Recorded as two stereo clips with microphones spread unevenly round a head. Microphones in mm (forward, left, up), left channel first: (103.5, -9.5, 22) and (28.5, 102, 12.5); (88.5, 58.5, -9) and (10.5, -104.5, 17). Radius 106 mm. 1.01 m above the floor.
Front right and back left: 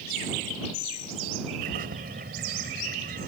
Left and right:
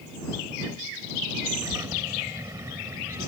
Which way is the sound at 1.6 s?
170° left.